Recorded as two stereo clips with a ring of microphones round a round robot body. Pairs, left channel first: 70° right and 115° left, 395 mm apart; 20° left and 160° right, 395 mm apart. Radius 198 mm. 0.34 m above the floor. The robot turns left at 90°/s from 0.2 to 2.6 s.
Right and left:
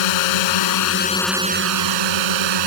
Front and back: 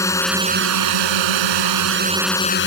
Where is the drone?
60° right; by 2.7 s 85° left.